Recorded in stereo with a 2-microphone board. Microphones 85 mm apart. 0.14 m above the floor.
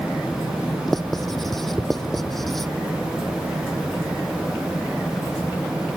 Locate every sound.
0.9 s writing: centre (ahead or behind)